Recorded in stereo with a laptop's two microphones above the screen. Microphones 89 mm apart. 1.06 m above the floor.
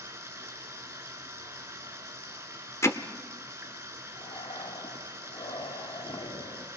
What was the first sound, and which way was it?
Running water, 30° right (ahead or behind).